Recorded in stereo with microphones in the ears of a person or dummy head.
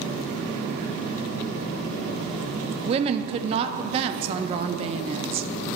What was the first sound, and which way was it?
A woman speaking, 30° right (ahead or behind).